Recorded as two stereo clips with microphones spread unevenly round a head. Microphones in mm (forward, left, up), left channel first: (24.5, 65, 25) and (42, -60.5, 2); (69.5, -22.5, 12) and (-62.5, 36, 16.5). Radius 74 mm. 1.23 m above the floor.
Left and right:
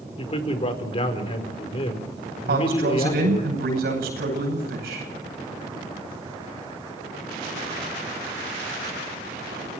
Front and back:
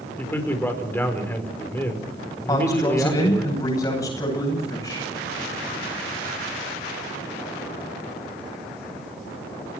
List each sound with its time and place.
0.2 s a man speaking: 55° left, 4.5 m
2.5 s a man speaking: 95° right, 9.5 m